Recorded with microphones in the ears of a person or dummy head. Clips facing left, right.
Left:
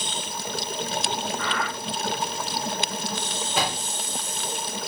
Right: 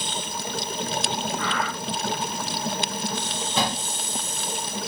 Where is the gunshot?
10° left (ahead or behind), 8.5 m.